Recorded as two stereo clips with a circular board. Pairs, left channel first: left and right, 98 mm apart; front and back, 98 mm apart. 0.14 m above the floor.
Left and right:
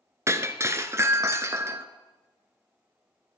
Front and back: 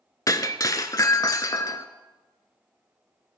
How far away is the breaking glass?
About 0.8 m.